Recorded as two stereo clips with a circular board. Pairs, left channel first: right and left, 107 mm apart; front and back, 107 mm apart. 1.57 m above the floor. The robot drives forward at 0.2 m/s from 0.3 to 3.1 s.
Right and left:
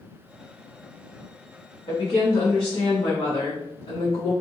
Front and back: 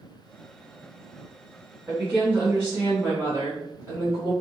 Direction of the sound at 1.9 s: 100° right.